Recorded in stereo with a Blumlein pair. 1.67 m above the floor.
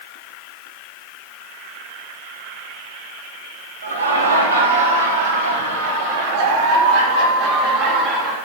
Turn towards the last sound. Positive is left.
turn(degrees=-25)